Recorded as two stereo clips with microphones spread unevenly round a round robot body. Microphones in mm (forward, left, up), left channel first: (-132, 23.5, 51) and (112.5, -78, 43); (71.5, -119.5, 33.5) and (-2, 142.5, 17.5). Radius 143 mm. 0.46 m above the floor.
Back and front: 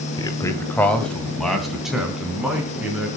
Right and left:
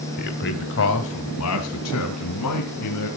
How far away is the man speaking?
About 1.9 m.